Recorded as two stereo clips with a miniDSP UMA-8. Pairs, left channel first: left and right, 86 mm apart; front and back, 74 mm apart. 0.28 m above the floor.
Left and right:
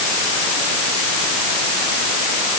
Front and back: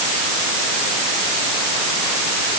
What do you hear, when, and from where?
Only background noise.